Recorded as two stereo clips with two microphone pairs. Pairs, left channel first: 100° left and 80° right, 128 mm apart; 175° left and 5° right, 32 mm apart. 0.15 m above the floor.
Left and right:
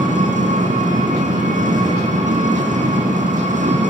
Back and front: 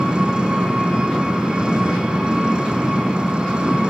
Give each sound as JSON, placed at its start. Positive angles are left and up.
{"t": 0.0, "sound": "an engine running", "azimuth_deg": -65, "distance_m": 5.5}